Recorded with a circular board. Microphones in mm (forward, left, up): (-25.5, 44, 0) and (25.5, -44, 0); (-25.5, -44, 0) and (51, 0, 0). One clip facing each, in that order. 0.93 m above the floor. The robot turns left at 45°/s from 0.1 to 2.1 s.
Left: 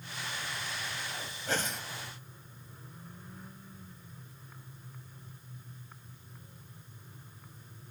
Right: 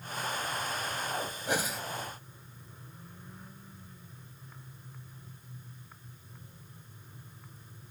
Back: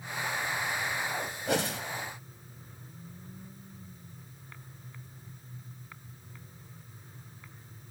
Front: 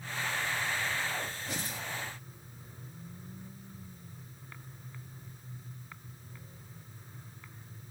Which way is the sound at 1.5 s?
135° right.